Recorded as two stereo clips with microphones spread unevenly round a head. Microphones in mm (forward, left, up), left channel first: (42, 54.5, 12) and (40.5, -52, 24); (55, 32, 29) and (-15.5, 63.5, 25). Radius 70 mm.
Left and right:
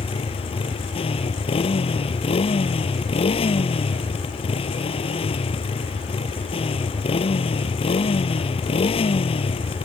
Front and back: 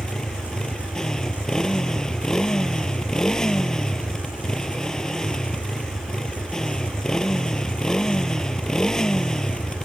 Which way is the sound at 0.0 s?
60° left.